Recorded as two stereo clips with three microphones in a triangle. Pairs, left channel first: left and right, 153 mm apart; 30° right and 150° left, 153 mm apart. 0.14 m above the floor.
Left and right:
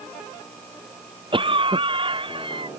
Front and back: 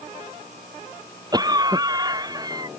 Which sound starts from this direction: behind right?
A cough, at 1.3 s.